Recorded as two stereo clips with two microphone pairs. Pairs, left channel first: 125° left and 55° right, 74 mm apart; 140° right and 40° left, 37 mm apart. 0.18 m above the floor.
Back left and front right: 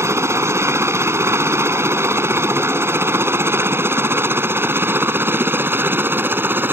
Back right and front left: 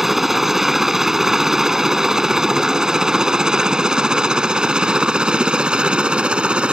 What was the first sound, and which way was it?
A helicopter, 40° right.